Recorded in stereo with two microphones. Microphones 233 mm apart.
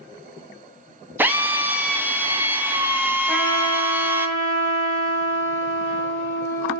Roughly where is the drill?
Centre.